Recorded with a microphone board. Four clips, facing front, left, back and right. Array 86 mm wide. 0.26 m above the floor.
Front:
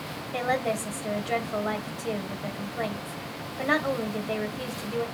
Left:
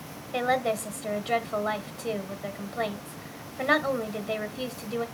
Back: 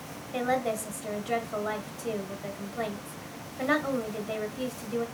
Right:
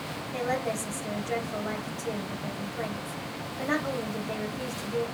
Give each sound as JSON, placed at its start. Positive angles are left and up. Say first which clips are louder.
{"t": 0.3, "sound": "a woman speaking", "louder": "left 4 dB, front 1 dB", "azimuth_deg": 80, "distance_m": 1.2}